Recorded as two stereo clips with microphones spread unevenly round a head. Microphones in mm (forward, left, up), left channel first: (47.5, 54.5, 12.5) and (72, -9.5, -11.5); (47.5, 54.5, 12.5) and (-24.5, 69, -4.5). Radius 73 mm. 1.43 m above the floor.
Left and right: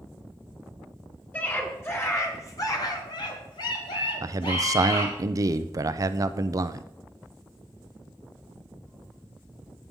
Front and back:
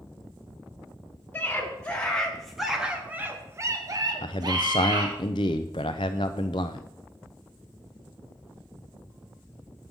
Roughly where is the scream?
Ahead left.